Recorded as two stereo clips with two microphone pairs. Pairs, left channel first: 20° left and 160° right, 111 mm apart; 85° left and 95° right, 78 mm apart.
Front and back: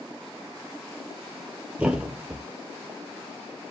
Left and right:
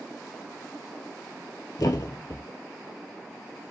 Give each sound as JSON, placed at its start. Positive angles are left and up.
{"t": 1.8, "sound": "a thud", "azimuth_deg": 120, "distance_m": 0.7}